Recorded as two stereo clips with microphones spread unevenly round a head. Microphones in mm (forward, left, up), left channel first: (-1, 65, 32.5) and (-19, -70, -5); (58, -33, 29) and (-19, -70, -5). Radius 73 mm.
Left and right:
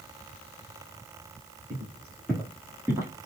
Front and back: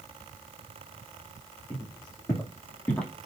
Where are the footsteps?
15° left, 3 m; by 3.3 s 30° right, 1.4 m.